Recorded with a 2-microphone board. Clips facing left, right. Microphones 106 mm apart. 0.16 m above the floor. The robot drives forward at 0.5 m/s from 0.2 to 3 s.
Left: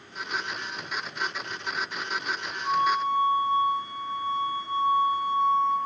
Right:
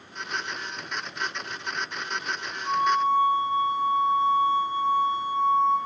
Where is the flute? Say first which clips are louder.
Right 2 dB; 20° left (ahead or behind), 5.5 m.